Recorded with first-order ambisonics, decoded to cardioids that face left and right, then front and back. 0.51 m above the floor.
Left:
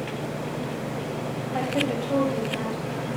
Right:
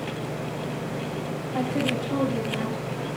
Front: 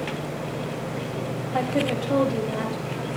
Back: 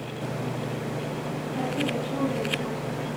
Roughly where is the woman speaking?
Ahead.